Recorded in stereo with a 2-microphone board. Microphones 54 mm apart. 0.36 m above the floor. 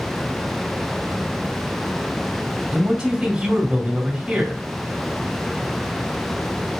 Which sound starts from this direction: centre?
A man speaking, at 2.7 s.